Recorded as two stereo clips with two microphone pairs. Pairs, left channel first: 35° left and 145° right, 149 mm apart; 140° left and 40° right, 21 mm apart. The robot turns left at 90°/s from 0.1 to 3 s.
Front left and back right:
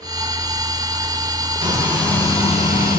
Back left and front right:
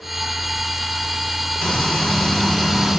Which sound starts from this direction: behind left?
Frying, at 1.6 s.